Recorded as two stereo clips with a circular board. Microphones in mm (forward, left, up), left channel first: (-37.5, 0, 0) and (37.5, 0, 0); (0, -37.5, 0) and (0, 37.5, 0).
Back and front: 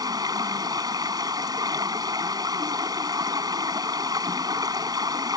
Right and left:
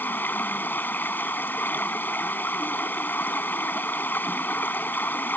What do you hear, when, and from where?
0.0 s running water: 25° right